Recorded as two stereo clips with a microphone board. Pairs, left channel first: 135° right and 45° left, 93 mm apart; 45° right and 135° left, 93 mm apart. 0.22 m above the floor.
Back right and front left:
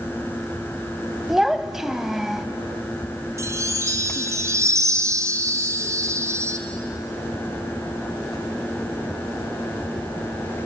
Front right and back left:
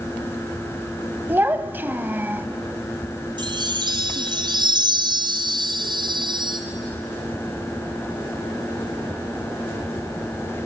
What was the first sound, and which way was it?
A child speaking, 125° left.